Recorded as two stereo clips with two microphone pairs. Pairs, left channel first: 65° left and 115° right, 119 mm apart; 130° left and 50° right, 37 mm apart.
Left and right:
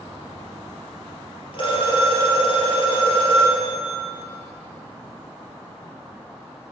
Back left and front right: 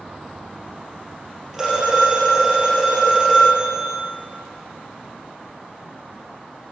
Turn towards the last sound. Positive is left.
turn(degrees=30)